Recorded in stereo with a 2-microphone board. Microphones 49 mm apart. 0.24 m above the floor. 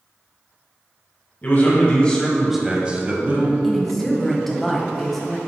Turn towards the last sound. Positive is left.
turn(degrees=5)  # may be behind; listen again after turning